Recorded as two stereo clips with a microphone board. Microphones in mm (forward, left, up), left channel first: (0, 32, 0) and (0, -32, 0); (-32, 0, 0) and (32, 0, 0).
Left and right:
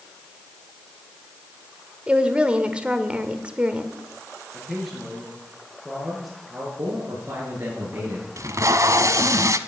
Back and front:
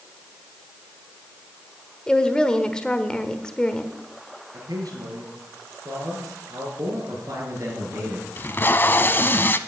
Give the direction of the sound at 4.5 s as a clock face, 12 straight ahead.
12 o'clock.